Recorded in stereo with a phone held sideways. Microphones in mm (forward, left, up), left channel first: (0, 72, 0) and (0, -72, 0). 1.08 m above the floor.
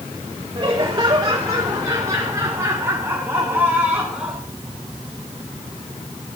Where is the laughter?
30° right (ahead or behind), 4 m; by 4.4 s 5° right (ahead or behind), 2.5 m.